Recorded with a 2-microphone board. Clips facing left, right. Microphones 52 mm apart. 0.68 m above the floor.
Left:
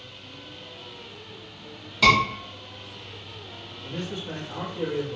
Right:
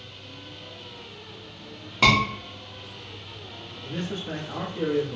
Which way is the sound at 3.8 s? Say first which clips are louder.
Right 1 dB; 30° right (ahead or behind).